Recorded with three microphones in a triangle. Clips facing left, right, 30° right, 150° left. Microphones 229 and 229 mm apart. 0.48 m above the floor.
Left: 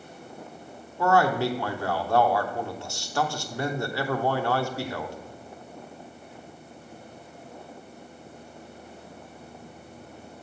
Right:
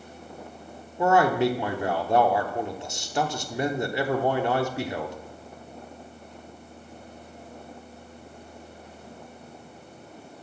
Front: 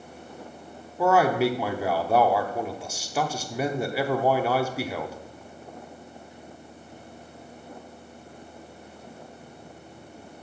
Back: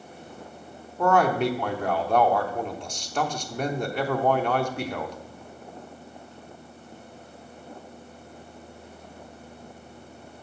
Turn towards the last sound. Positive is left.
turn(degrees=-100)